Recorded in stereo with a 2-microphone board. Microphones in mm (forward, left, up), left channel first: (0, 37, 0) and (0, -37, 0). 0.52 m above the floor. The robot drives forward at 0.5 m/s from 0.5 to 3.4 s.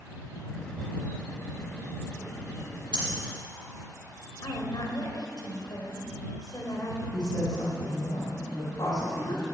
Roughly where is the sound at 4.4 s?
Left.